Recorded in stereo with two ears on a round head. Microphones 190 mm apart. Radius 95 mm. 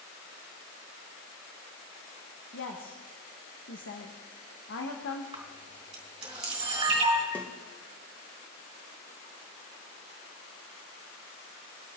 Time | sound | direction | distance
2.5 | a woman speaking | 60° left (ahead or behind) | 1.5 m
5.3 | a camera shutter | 25° right (ahead or behind) | 4 m
7.3 | a snare drum | 10° left (ahead or behind) | 1.3 m